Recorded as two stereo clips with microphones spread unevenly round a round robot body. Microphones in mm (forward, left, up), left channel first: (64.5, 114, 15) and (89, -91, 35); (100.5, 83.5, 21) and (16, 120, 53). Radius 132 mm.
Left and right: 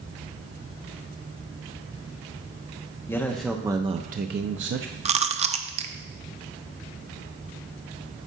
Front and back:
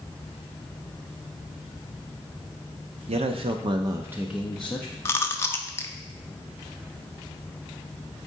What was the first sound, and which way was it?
A man speaking, 170° left.